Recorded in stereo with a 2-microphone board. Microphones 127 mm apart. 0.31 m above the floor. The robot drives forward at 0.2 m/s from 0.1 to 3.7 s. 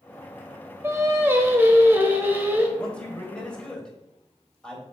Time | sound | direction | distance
0.8 | singing | 20° right (ahead or behind) | 0.6 m
2.8 | a man speaking | 10° left (ahead or behind) | 1.0 m